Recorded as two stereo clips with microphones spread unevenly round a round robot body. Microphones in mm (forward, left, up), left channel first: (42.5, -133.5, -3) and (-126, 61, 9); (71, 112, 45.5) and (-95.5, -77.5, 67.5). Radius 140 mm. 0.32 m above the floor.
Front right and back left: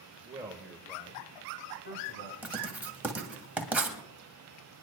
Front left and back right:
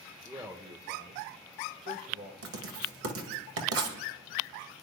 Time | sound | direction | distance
0.2 | a man speaking | 150° left | 1.2 m
2.4 | writing | 145° right | 1.9 m